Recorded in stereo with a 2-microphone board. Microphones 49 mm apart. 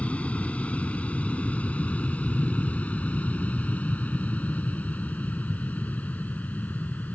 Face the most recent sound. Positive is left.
turn(degrees=35)  # may be behind; listen again after turning